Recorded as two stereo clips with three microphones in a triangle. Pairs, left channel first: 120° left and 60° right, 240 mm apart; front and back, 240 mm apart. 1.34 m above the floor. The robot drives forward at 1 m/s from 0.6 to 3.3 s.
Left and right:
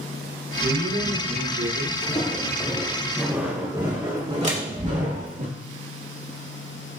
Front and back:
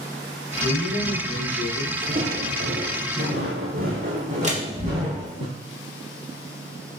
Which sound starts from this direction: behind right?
A door slam, at 4.4 s.